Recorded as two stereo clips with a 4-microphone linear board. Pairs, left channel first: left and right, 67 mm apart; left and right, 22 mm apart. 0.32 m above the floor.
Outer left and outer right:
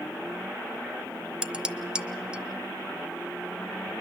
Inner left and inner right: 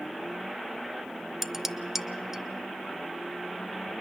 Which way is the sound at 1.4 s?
15° right (ahead or behind).